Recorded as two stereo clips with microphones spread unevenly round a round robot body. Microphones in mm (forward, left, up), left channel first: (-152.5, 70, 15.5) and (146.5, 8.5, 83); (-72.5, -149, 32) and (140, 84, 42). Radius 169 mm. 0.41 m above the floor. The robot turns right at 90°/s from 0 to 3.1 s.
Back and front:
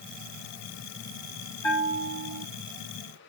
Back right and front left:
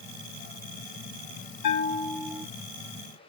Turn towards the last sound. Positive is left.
turn(degrees=20)